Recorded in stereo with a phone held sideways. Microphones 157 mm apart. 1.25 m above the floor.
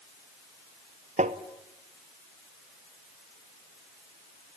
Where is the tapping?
45° right (ahead or behind), 1.0 m.